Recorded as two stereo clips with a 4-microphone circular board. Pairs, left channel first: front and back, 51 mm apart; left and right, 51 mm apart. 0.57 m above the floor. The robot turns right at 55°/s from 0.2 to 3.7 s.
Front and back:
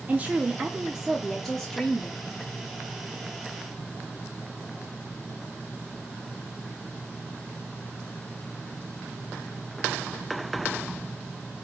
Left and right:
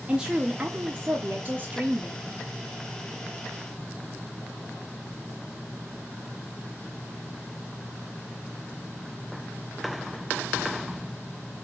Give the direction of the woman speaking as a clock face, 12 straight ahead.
5 o'clock.